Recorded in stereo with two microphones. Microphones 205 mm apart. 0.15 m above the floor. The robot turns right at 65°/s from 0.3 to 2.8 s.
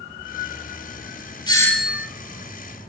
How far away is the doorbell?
About 3 m.